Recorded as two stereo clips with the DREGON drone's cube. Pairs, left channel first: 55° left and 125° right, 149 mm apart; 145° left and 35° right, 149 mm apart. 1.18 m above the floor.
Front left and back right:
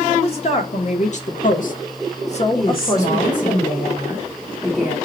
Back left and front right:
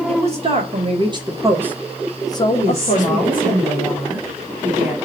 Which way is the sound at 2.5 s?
40° left.